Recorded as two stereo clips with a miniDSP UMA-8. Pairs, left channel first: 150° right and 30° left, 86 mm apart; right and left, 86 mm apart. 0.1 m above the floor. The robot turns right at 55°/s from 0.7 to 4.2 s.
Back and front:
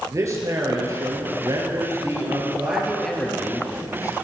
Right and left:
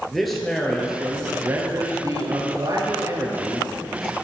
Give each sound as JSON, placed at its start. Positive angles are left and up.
{"t": 0.1, "sound": "a man speaking", "azimuth_deg": 0, "distance_m": 2.5}